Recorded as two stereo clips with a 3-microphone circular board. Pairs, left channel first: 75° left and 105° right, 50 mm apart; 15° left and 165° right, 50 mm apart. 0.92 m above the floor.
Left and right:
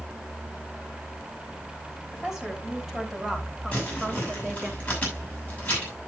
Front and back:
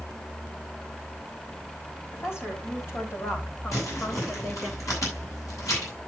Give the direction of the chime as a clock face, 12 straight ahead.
I don't hear a chime.